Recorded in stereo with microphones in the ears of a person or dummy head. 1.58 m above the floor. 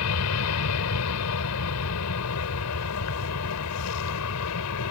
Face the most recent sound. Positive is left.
turn(degrees=80)